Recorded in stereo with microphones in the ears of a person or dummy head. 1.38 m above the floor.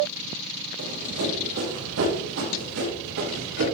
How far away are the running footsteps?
About 5.5 m.